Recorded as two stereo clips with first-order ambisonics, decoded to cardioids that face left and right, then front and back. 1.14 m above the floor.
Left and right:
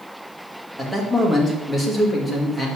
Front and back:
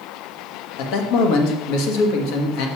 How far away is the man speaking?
About 1.4 m.